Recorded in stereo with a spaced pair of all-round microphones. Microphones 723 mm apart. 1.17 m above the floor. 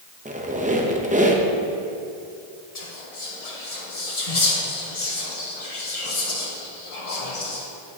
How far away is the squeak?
About 0.6 m.